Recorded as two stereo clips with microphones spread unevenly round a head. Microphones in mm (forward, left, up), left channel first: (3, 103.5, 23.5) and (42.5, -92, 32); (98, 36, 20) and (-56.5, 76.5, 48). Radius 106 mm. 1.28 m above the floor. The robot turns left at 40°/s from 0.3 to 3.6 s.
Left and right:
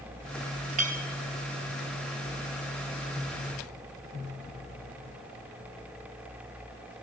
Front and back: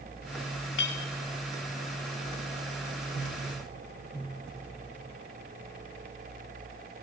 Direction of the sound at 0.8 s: 25° right.